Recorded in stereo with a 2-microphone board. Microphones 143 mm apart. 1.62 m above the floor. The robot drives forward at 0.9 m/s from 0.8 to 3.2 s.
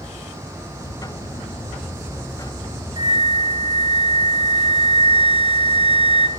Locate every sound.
3.0 s a flute: 35° right (ahead or behind), 1.0 m; by 6.3 s 45° right (ahead or behind), 0.9 m